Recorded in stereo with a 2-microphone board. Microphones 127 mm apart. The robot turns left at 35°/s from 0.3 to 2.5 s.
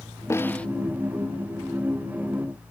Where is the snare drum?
20° left (ahead or behind); by 0.7 s 10° left (ahead or behind).